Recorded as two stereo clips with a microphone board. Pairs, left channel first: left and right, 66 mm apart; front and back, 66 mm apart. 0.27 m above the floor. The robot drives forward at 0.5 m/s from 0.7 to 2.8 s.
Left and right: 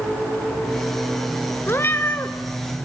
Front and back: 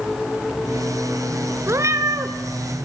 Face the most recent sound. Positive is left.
turn(degrees=150)